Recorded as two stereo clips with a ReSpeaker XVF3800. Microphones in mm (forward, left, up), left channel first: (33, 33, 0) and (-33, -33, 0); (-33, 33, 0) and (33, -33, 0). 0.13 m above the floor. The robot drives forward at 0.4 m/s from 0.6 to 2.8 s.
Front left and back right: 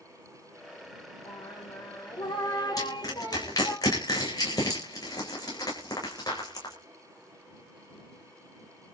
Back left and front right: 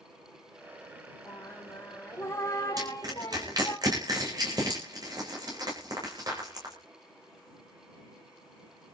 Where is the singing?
70° left, 3 m; by 3.8 s 85° left, 2.5 m.